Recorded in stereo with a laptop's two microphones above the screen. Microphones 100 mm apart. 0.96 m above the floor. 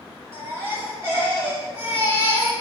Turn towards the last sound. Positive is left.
turn(degrees=-25)  # may be behind; listen again after turning